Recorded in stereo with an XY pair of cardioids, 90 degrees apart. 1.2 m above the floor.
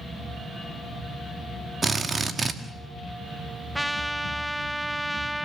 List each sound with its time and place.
1.8 s a drill: 35° right, 1.8 m
3.8 s a trumpet: 5° right, 1.0 m